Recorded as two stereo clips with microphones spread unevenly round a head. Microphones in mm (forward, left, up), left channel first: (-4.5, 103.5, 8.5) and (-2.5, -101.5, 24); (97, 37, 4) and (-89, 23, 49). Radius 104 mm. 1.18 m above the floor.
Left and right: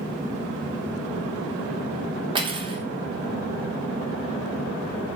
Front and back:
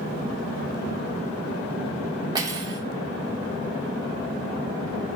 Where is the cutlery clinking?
135° right, 0.5 m.